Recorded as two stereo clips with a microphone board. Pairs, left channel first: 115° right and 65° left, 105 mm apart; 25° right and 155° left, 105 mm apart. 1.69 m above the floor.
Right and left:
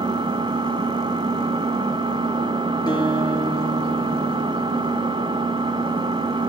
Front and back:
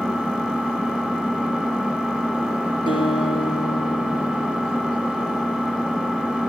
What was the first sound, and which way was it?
An engine running, 75° left.